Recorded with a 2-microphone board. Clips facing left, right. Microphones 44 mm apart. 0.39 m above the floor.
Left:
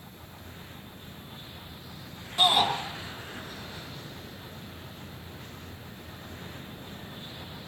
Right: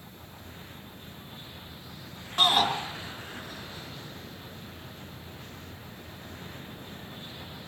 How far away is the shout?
About 5 m.